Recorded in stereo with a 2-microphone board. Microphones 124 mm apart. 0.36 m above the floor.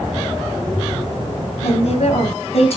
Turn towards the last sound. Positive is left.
turn(degrees=55)  # may be behind; listen again after turning